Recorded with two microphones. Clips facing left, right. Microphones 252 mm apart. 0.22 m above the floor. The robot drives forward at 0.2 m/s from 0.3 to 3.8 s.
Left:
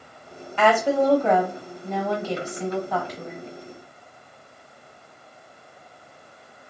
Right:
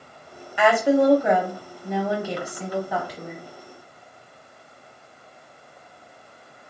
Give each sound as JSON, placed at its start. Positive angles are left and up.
{"t": 0.6, "sound": "a woman speaking", "side_deg": -10, "distance_m": 0.9}